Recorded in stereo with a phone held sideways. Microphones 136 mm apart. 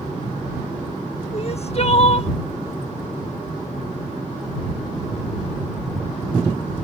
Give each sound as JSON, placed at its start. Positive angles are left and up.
{"t": 1.3, "sound": "crying", "side_deg": 50}